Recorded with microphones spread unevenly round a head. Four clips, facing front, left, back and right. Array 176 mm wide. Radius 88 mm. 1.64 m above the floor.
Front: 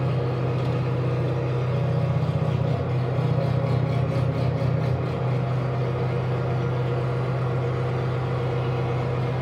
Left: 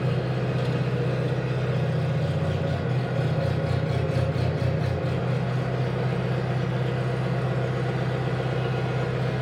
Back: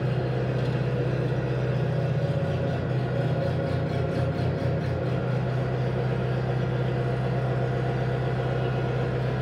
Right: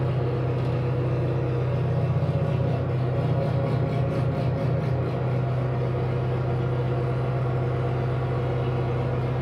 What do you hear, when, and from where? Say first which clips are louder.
0.0 s an engine running: even, front 2 dB; 20° right, 5 m